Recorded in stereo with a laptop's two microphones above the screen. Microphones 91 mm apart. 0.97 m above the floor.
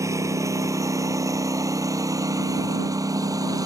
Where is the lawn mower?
35° right (ahead or behind); by 3.7 s 40° right (ahead or behind).